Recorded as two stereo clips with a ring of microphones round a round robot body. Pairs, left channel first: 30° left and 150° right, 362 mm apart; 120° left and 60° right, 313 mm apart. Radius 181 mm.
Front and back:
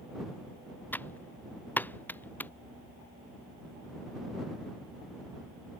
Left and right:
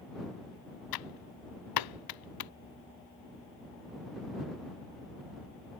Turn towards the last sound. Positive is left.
turn(degrees=115)